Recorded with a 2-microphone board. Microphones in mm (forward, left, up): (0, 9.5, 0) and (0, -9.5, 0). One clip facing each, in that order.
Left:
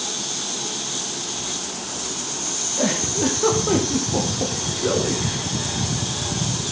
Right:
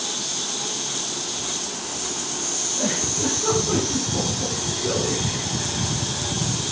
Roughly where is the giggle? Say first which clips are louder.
Left 4 dB; left.